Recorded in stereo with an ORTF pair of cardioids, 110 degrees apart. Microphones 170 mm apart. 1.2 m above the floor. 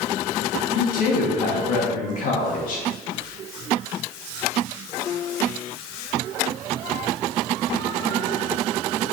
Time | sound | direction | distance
0.8 | a woman speaking | 55° left | 2.5 m